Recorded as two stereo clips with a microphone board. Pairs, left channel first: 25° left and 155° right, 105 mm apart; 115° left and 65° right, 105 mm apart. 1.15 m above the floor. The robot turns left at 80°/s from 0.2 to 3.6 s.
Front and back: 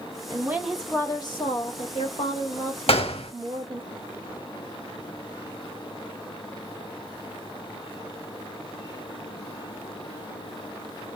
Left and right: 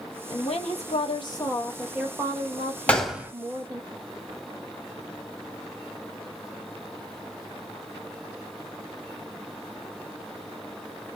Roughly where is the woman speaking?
Behind left.